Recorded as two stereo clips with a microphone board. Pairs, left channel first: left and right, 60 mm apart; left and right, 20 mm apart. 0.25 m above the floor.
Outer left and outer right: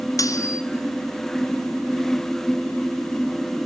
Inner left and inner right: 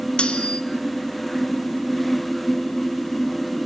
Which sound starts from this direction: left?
Cutlery clinking, at 0.2 s.